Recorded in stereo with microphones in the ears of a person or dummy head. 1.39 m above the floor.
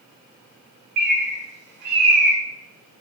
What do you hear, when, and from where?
1.0 s a bird: 50° right (ahead or behind), 1.1 m